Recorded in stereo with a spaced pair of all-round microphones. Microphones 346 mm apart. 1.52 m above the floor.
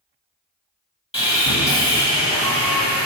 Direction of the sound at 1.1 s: 15° left (ahead or behind).